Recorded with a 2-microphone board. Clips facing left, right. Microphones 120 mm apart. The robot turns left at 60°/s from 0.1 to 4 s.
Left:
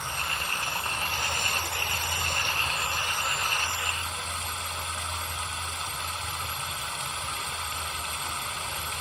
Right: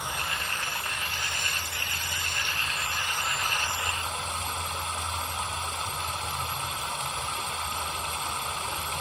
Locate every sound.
0.0 s running water: 165° right, 1.0 m; by 9.0 s 40° right, 1.0 m